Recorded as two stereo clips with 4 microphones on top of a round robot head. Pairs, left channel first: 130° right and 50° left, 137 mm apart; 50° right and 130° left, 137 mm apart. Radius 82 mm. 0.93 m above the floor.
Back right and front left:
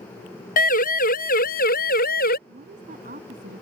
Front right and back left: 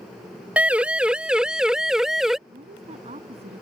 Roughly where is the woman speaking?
Left.